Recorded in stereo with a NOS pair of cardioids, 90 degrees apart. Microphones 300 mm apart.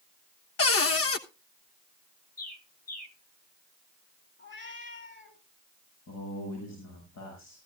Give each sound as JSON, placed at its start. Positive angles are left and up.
{"t": 0.6, "sound": "a cupboard door", "azimuth_deg": 50, "distance_m": 1.2}
{"t": 2.4, "sound": "a bird", "azimuth_deg": 30, "distance_m": 2.0}
{"t": 4.4, "sound": "a cat meowing", "azimuth_deg": 40, "distance_m": 5.5}
{"t": 6.1, "sound": "a man speaking", "azimuth_deg": 60, "distance_m": 7.5}